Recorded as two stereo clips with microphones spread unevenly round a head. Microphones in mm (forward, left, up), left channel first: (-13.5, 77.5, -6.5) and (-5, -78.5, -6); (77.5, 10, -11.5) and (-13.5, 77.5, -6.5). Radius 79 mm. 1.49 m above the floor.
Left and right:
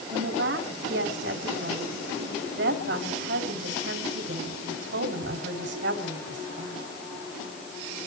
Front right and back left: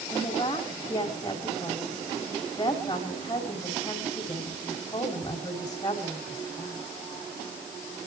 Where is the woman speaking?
100° right, 4 m.